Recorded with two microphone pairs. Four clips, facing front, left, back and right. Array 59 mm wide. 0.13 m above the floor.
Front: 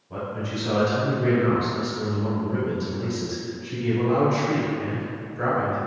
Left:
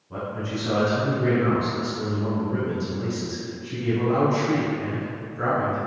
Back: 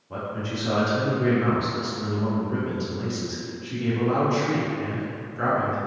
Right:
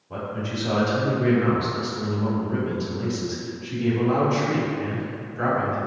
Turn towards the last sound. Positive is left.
turn(degrees=-130)